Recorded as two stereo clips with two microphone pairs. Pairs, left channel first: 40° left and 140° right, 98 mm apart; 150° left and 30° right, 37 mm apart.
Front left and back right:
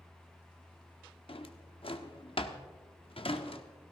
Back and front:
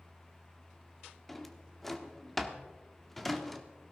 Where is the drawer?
60° left, 1.0 m.